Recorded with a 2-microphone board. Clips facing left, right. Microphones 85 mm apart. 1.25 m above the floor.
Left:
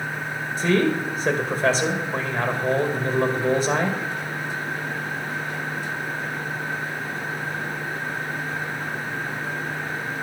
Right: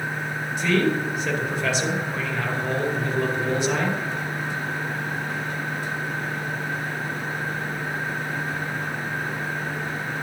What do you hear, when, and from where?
0.6 s a man speaking: 35° left (ahead or behind), 2 m